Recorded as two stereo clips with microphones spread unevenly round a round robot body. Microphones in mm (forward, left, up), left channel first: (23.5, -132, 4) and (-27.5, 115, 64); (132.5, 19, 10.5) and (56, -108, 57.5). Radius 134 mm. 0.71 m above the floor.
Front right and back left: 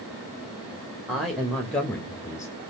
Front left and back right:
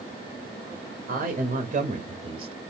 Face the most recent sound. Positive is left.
turn(degrees=-45)